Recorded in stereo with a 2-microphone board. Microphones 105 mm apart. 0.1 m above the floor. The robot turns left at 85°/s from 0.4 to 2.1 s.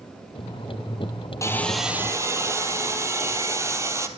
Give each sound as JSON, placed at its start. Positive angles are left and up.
{"t": 1.4, "sound": "sawing", "azimuth_deg": 30, "distance_m": 1.0}